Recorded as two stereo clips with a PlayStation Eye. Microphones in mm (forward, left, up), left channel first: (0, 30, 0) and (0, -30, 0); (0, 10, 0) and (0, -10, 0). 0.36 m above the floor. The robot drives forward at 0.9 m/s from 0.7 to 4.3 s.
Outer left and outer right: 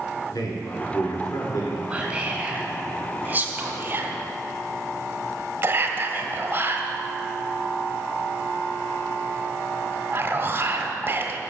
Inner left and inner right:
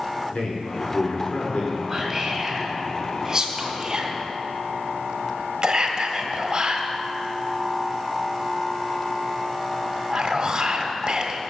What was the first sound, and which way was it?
A man speaking, 75° left (ahead or behind).